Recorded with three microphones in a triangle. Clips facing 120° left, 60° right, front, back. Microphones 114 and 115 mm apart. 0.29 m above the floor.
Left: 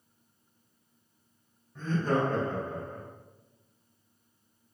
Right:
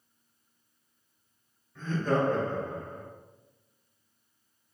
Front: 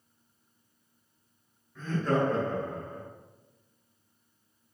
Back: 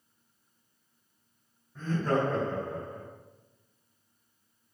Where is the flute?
No flute in this recording.